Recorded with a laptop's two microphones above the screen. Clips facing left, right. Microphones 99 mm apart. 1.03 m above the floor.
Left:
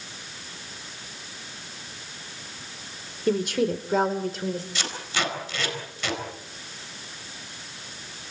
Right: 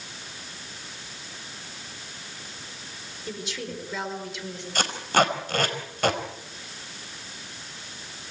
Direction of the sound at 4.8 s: 50° right (ahead or behind).